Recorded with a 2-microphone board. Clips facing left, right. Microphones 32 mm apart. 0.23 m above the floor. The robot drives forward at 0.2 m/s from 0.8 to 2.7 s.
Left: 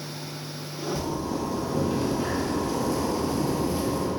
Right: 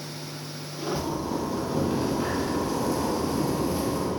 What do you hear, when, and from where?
0.9 s a zipper: 20° right (ahead or behind), 0.8 m; by 4.1 s 15° right (ahead or behind), 1.1 m